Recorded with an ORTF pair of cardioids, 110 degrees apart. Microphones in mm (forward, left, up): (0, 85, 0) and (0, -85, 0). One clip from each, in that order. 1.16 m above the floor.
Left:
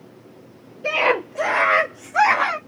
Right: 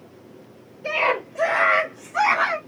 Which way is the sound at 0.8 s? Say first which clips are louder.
Left 3 dB; 45° left.